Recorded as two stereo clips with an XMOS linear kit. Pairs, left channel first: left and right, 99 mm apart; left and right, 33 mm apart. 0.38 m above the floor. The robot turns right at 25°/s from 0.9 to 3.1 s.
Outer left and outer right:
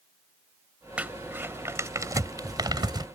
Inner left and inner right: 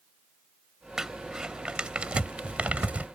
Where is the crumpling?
15° right (ahead or behind); by 3.1 s 50° right (ahead or behind).